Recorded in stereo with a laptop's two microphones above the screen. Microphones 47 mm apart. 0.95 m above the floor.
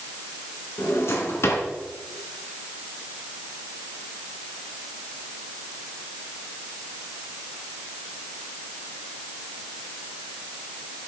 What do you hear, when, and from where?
0.8 s a drawer: 70° left (ahead or behind), 3 m